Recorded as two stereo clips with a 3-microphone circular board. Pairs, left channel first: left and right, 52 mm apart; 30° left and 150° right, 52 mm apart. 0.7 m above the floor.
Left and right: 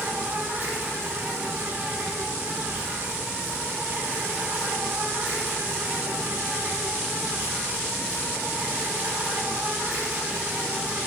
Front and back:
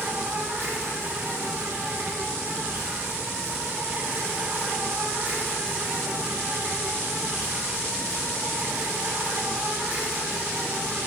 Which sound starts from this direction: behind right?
An insect, at 0.0 s.